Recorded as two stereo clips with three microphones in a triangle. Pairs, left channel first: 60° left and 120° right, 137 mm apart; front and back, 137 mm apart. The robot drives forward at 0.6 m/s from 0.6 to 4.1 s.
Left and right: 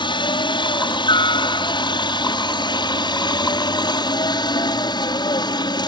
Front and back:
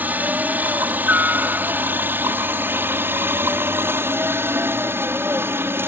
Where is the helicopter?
105° left; by 5.9 s 110° left.